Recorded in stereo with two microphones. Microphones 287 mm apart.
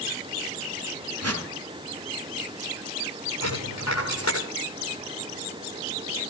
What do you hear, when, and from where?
1.2 s a whoosh: 60° right (ahead or behind), 1.5 m
3.4 s a dropped coin: 70° left (ahead or behind), 7 m